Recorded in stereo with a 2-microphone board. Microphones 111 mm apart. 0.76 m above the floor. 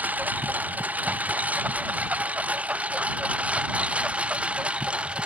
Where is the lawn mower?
15° right (ahead or behind); by 5.3 s 10° right (ahead or behind).